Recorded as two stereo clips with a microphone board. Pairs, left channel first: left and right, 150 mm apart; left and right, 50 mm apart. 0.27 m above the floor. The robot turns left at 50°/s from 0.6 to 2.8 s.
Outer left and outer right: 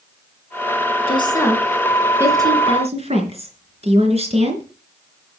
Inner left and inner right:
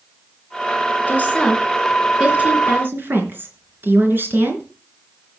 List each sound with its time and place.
1.1 s a woman speaking: 35° left (ahead or behind), 3.5 m; by 4.6 s 45° right (ahead or behind), 3.5 m